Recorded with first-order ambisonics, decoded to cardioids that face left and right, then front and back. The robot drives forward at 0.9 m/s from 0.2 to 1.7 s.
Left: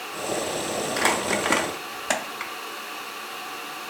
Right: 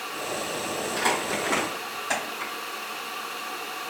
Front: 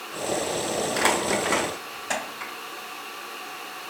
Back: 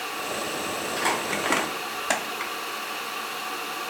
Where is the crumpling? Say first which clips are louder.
Left 3 dB, front 3 dB; 40° left, 0.7 m; by 2.5 s 135° left, 0.7 m.